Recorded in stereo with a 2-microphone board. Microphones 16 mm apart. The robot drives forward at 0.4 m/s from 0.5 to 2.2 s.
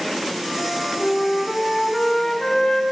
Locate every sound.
0.6 s a flute: 45° left (ahead or behind), 4.5 m; by 2.8 s 40° left (ahead or behind), 5 m